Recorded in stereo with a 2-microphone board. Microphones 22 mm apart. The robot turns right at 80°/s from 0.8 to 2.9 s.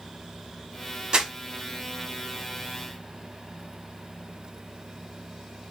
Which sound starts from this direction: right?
Crumpling, at 1.1 s.